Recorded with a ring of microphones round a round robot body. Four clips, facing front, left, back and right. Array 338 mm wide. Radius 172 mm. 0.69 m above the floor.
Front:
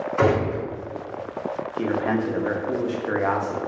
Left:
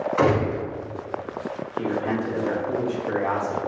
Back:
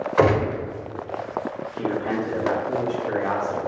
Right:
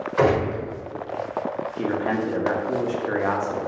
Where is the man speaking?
40° right, 0.7 m.